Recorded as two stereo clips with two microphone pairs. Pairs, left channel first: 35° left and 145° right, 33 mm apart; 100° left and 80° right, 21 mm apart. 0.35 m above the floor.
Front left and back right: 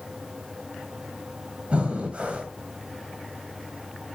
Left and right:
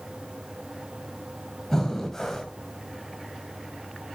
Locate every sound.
1.7 s breathing: 170° left, 2.5 m